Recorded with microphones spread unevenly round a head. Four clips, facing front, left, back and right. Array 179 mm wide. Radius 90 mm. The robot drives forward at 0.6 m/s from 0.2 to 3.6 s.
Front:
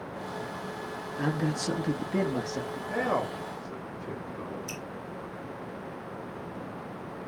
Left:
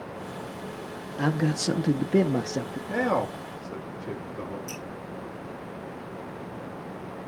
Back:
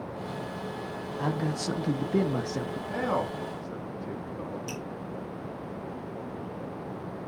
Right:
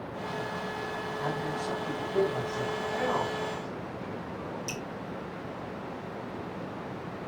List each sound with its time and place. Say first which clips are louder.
1.2 s a man speaking: left 8 dB, front 1 dB; 80° left, 1.4 m; by 2.8 s 120° left, 1.6 m
2.9 s a man speaking: left 6 dB, front 1 dB; 95° left, 3.5 m; by 4.6 s 105° left, 3.5 m
4.7 s dripping: right 1 dB, back 3 dB; 175° right, 2.5 m